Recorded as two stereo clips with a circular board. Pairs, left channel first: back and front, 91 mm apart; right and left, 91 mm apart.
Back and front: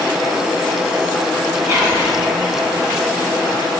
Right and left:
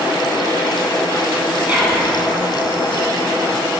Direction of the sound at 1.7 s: 35° left.